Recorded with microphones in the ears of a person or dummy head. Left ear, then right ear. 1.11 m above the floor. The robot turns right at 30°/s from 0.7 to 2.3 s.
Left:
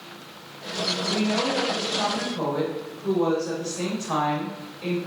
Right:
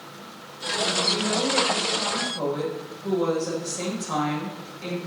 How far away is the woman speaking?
About 6.5 m.